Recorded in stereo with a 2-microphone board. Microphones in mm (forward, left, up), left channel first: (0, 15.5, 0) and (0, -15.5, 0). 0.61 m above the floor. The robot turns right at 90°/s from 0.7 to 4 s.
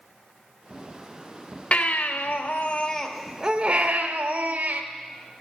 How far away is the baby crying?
About 1.2 m.